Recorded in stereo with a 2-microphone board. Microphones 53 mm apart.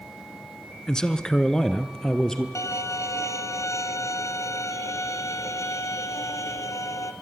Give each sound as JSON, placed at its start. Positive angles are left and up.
{"t": 0.9, "sound": "a man speaking", "side_deg": 10, "distance_m": 1.1}
{"t": 2.5, "sound": "a violin", "side_deg": 70, "distance_m": 1.3}